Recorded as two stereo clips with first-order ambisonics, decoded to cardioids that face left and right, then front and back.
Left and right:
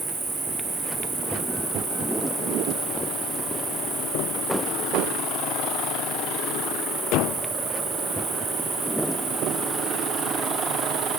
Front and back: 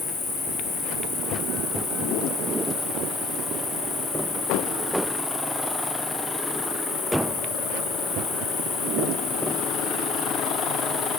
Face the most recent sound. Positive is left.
turn(degrees=-40)